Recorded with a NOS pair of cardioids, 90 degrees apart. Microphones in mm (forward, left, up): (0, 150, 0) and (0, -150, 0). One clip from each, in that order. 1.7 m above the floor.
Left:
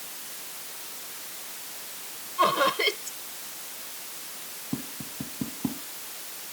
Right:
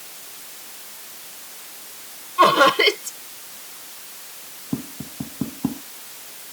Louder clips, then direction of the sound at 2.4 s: Right 9 dB; 60° right.